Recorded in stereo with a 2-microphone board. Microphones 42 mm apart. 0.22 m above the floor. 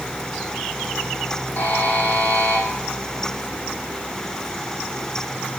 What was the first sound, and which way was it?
A buzzer, 40° left (ahead or behind).